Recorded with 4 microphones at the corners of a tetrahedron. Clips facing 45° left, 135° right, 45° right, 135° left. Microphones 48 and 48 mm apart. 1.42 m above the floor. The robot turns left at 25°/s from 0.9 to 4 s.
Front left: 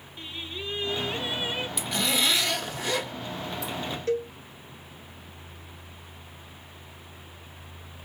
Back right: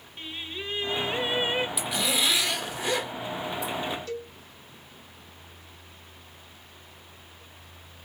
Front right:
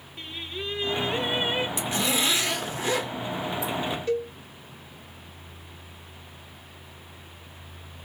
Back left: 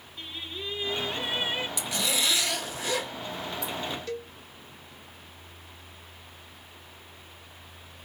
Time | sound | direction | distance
0.2 | singing | 75° right | 1.2 m
1.8 | a zipper | 55° right | 1.2 m
4.1 | a cowbell | 20° left | 0.9 m